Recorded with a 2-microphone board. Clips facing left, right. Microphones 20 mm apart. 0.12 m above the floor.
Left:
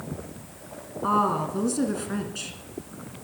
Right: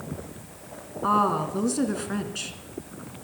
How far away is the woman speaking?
About 1.6 m.